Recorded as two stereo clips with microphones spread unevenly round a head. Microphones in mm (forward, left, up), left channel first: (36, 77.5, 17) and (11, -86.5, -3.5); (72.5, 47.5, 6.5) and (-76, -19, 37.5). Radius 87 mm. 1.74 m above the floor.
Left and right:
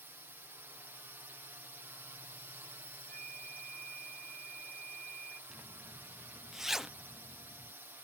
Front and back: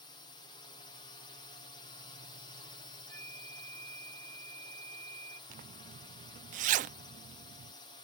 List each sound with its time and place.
0.0 s a drone: 25° right
3.1 s a flute: 55° right
5.5 s a zipper: 170° left